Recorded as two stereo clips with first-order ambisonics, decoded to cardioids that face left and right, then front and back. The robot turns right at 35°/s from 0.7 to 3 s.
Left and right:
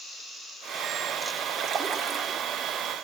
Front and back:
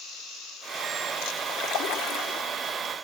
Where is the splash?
30° right, 1.7 m; by 2.4 s straight ahead, 1.7 m.